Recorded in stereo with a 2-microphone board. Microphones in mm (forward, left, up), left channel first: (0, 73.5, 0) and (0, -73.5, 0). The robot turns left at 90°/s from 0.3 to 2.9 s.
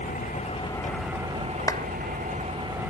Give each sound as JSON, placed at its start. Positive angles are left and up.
{"t": 0.0, "sound": "an engine running", "azimuth_deg": 65}
{"t": 1.7, "sound": "a clap", "side_deg": 25}